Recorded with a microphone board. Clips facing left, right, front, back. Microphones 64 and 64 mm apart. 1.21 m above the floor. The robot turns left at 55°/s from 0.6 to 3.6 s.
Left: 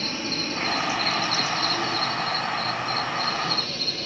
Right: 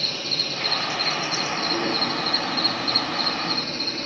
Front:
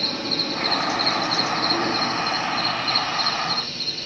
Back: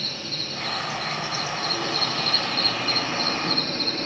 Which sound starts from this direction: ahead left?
An insect, at 0.0 s.